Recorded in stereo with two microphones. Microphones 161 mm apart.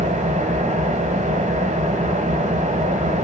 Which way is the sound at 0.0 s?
50° right (ahead or behind).